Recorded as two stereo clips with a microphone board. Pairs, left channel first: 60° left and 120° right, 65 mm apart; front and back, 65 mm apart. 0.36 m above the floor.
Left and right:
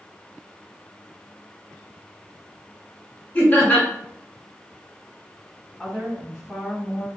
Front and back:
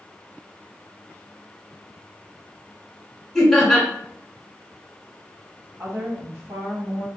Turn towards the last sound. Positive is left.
turn(degrees=155)